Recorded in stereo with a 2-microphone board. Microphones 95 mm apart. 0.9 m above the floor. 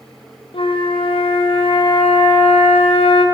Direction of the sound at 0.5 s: 70° left (ahead or behind).